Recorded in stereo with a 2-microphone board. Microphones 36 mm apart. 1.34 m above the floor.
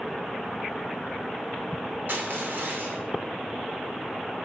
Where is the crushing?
70° right (ahead or behind), 2.5 m.